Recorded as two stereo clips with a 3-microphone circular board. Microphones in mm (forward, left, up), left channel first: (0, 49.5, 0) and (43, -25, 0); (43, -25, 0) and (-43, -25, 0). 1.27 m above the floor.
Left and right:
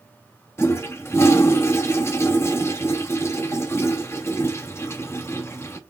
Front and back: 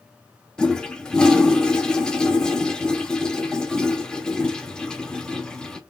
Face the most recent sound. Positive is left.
turn(degrees=75)